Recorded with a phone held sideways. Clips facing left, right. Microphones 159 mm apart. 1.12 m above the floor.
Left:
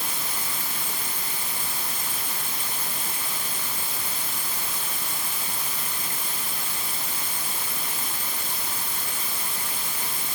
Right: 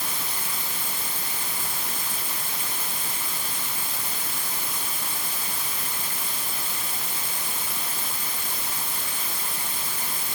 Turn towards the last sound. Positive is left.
No sound to turn to.